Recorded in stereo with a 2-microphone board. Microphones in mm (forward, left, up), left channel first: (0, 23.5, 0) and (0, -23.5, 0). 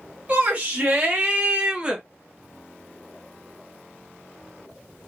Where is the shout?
35° right (ahead or behind), 4 m; by 2.0 s 15° right (ahead or behind), 1.4 m.